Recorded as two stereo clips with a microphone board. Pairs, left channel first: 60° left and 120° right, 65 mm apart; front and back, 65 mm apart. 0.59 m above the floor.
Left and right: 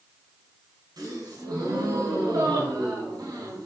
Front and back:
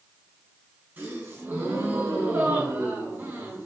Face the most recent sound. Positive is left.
turn(degrees=-120)